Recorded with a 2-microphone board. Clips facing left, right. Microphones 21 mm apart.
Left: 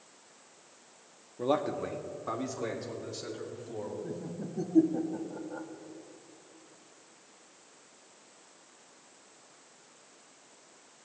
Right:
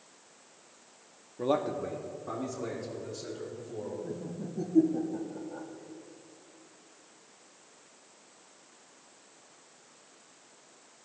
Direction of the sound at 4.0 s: 20° left (ahead or behind).